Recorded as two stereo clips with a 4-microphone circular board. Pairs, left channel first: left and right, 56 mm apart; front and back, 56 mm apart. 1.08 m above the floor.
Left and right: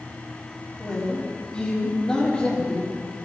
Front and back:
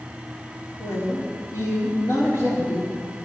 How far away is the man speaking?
About 3.5 m.